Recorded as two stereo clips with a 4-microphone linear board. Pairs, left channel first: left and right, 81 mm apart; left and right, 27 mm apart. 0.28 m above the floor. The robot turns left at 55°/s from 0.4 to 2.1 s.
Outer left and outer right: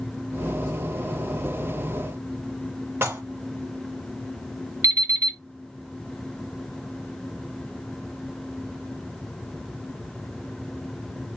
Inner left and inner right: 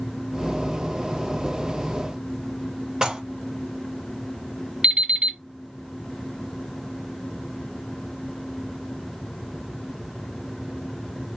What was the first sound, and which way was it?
Dishes clattering, 30° right (ahead or behind).